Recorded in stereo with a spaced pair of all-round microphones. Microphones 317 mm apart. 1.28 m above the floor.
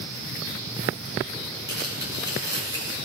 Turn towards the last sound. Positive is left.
turn(degrees=-15)  # may be behind; listen again after turning